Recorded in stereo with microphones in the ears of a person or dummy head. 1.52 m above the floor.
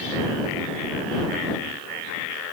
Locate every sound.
Only background noise.